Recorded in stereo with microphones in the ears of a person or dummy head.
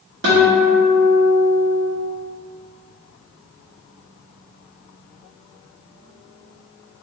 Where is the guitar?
60° right (ahead or behind), 0.7 m.